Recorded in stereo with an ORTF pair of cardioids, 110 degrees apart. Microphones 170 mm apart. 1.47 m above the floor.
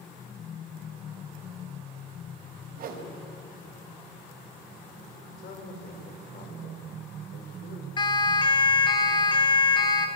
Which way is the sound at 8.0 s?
30° left.